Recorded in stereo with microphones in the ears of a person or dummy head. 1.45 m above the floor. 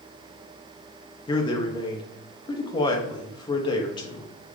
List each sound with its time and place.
1.3 s a man speaking: 25° left (ahead or behind), 0.6 m